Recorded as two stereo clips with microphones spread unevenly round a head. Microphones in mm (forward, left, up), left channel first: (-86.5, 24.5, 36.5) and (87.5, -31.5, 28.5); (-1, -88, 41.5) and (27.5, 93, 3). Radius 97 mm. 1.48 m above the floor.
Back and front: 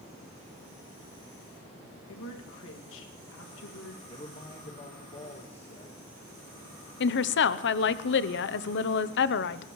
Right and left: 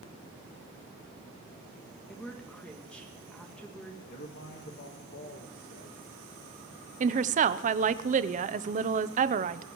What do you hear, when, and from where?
2.1 s a woman speaking: 175° left, 2 m
4.1 s a man speaking: 140° right, 1.6 m
7.0 s a woman speaking: 135° left, 0.7 m